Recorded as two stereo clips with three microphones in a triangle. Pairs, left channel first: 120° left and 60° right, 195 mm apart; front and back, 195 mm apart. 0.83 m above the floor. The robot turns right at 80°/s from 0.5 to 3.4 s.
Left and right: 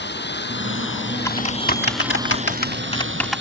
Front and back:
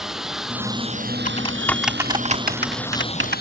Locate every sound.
0.0 s a lawn mower: 90° left; by 3.4 s 35° right
1.2 s typing on a keyboard: 45° left; by 3.4 s 145° right